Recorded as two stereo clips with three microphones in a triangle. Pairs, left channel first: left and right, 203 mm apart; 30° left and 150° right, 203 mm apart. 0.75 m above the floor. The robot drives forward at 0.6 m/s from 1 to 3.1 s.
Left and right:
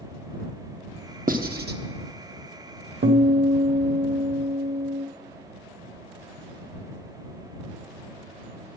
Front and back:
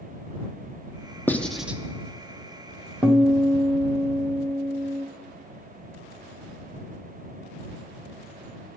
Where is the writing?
50° right, 0.9 m; by 1.8 s 70° right, 0.8 m.